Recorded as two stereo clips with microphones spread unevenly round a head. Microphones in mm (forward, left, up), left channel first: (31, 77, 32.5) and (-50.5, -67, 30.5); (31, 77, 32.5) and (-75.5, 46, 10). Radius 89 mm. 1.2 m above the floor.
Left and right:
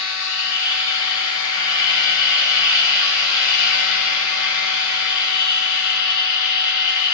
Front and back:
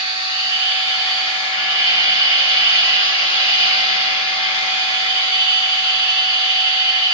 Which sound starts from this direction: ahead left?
A machine running, at 0.0 s.